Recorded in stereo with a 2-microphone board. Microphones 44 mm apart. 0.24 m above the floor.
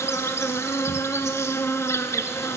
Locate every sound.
0.0 s an insect: 75° left (ahead or behind), 0.8 m